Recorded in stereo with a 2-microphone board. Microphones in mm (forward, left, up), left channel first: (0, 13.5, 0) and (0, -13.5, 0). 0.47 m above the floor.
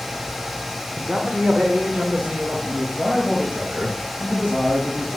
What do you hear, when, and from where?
1.0 s a man speaking: 30° right (ahead or behind), 1.0 m; by 5.2 s 65° right (ahead or behind), 3.5 m